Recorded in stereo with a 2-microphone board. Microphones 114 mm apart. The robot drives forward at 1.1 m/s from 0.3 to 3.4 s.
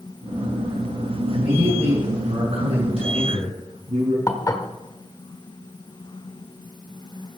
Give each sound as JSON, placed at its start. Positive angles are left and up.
{"t": 1.3, "sound": "a man speaking", "side_deg": -55, "distance_m": 7.0}
{"t": 4.3, "sound": "dishes clattering", "side_deg": 30, "distance_m": 1.1}